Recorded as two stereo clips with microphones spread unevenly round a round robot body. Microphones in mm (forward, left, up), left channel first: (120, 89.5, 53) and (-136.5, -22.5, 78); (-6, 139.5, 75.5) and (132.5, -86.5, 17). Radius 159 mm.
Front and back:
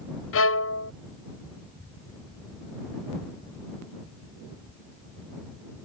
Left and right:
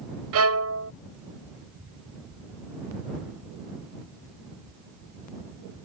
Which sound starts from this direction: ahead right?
A violin, at 0.3 s.